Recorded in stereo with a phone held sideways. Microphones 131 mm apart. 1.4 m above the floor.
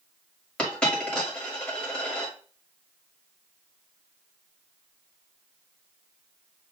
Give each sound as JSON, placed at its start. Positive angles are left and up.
{"t": 0.6, "sound": "a dropped coin", "side_deg": 5, "distance_m": 1.6}